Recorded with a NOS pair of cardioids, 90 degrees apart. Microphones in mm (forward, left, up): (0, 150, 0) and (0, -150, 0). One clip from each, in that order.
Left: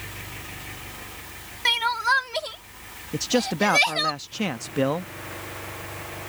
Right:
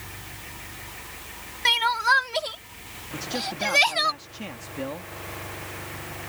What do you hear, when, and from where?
1.6 s crying: 10° right
3.1 s a man speaking: 60° left